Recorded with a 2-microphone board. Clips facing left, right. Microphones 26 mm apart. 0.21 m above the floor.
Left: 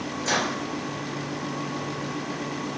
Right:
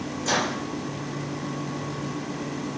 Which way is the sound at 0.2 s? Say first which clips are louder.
Even; 25° left (ahead or behind).